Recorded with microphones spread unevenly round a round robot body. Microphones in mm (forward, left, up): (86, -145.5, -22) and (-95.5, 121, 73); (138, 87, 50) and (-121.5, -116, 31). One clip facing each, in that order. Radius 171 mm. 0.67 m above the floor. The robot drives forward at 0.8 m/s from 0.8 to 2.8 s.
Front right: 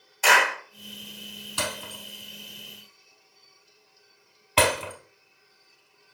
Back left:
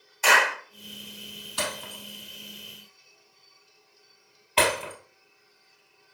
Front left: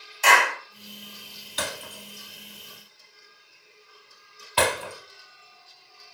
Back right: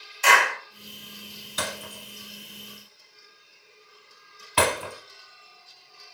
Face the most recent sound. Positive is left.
turn(degrees=-75)